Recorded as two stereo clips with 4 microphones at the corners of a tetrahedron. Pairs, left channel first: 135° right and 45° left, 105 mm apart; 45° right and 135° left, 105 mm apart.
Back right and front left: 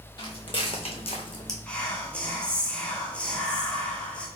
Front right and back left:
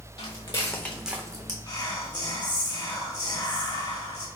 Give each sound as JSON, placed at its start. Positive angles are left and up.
{"t": 0.2, "sound": "footsteps", "azimuth_deg": -80, "distance_m": 1.5}
{"t": 1.7, "sound": "whispering", "azimuth_deg": -60, "distance_m": 1.1}